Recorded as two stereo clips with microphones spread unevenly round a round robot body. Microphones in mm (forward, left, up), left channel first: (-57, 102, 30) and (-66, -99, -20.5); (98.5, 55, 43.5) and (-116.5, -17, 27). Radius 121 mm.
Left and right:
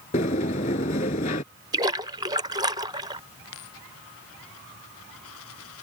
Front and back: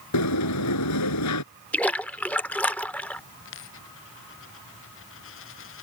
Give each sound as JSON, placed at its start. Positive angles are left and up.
{"t": 0.1, "sound": "a sliding door", "azimuth_deg": 25}
{"t": 1.7, "sound": "a splash", "azimuth_deg": -65}
{"t": 3.5, "sound": "a dropped coin", "azimuth_deg": 50}